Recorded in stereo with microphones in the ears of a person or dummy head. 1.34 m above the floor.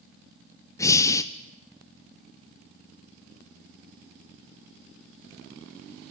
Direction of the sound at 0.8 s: 15° left (ahead or behind).